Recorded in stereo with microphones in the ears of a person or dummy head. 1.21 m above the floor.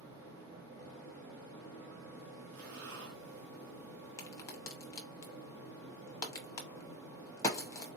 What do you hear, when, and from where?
0.0 s a fan: 60° right (ahead or behind), 2.5 m
2.5 s breathing: 75° right (ahead or behind), 1.4 m
4.2 s a crack: 15° left (ahead or behind), 0.8 m